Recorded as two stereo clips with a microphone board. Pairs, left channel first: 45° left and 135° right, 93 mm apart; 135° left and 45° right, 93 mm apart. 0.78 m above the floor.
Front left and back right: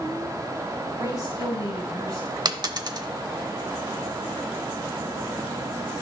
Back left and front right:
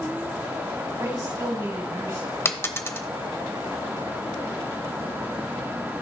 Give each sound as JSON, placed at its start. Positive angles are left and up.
{"t": 1.0, "sound": "a woman speaking", "azimuth_deg": -80, "distance_m": 5.0}
{"t": 2.5, "sound": "a dropped coin", "azimuth_deg": -165, "distance_m": 0.8}